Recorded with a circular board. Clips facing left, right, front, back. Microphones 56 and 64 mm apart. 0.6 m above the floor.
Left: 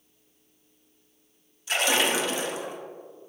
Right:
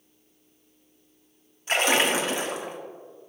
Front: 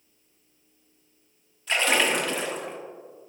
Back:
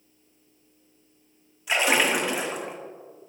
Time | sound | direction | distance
1.7 | a splash | 110° right | 1.1 m